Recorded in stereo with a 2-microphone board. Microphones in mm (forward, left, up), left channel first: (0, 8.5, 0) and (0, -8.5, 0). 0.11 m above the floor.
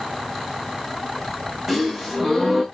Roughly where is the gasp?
Right.